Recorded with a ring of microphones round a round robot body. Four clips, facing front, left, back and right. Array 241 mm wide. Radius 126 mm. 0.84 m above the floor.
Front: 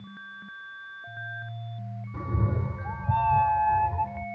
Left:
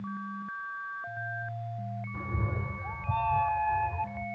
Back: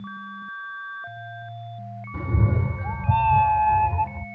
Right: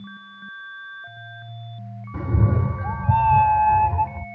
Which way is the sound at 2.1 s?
110° right.